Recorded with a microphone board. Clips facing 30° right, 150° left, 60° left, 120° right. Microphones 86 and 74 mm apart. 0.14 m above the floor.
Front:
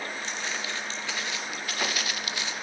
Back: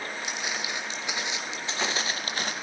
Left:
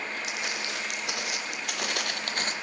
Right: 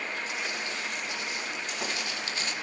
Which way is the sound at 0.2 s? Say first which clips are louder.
Back 1 dB, even; 75° left.